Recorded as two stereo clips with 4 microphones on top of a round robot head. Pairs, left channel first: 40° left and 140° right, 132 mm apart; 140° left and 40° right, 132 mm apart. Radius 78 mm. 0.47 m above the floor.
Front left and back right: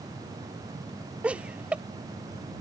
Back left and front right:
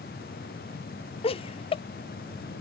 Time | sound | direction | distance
1.2 | laughter | 140° left | ?